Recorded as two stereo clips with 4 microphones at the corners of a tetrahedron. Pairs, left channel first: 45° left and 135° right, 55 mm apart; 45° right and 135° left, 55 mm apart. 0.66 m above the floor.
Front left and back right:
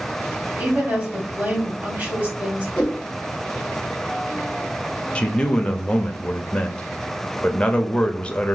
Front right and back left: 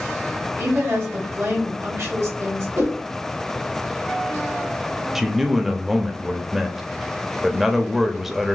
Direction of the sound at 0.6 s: 155° left.